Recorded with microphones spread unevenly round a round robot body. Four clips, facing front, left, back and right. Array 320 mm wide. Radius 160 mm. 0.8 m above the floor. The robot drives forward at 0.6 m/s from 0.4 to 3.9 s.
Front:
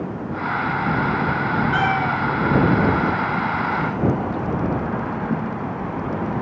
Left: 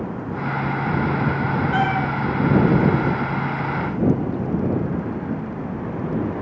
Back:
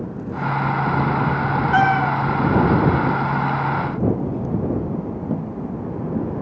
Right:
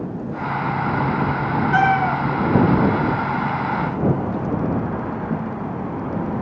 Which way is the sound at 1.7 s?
105° right.